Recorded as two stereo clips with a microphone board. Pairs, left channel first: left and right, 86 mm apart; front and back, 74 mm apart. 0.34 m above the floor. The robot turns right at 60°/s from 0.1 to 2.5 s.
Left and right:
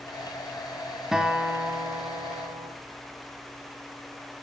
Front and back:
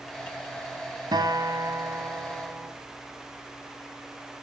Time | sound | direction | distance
1.1 | a guitar | 175° right | 3 m